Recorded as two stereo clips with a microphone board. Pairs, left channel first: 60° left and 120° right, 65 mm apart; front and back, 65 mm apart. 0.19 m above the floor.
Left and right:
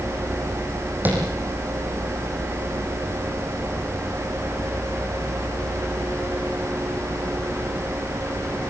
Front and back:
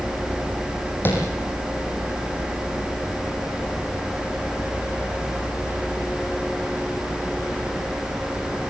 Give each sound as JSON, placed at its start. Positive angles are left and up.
{"t": 1.1, "sound": "tapping", "azimuth_deg": -60, "distance_m": 6.0}